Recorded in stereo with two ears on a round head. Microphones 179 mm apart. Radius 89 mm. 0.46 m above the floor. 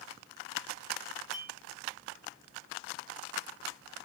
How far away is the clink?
About 4 m.